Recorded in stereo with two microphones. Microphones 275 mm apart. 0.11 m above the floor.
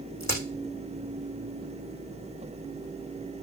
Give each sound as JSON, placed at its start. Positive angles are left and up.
{"t": 0.2, "sound": "a crack", "side_deg": 70, "distance_m": 5.5}